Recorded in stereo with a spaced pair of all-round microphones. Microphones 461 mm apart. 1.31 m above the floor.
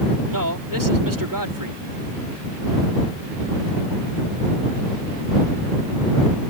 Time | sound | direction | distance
0.3 | a man speaking | 45° right (ahead or behind) | ?